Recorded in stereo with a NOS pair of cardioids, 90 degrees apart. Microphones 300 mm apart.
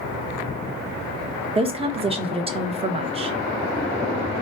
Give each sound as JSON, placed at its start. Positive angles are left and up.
{"t": 1.6, "sound": "a woman speaking", "azimuth_deg": -20, "distance_m": 0.9}